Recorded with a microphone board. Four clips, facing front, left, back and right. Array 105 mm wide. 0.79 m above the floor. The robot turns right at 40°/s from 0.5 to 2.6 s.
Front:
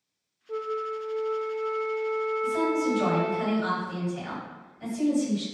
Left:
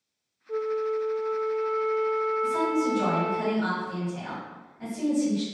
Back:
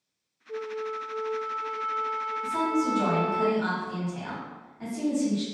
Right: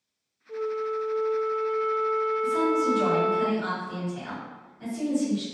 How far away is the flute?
About 0.5 m.